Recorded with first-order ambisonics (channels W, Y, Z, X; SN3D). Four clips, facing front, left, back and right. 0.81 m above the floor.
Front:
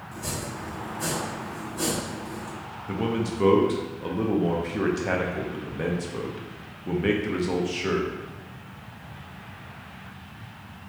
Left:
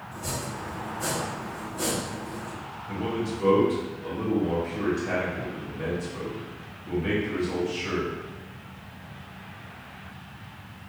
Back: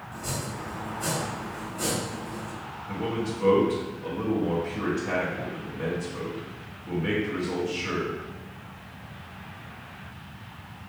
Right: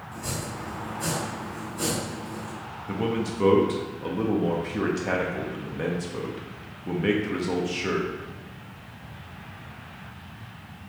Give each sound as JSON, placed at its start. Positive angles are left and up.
{"t": 0.1, "sound": "chopping", "azimuth_deg": 5, "distance_m": 1.6}
{"t": 2.9, "sound": "a man speaking", "azimuth_deg": -40, "distance_m": 0.7}